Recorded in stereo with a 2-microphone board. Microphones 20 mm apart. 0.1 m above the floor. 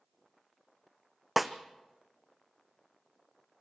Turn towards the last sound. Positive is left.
turn(degrees=-5)  # may be behind; listen again after turning